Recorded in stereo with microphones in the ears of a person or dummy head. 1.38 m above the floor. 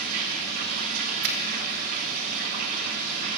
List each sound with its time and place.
0.0 s running water: 45° right (ahead or behind), 0.9 m
1.2 s a finger snap: 55° right (ahead or behind), 1.2 m